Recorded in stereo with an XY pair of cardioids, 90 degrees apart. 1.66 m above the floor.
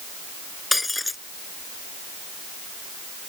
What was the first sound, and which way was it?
Breaking glass, 15° left.